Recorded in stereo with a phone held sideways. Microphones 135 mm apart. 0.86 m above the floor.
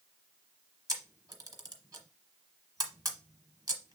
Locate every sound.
0.9 s a camera shutter: 25° right (ahead or behind), 0.9 m